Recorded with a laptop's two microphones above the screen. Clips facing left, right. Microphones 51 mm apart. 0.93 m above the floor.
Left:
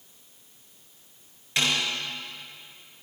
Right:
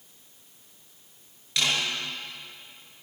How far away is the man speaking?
No man speaking in this recording.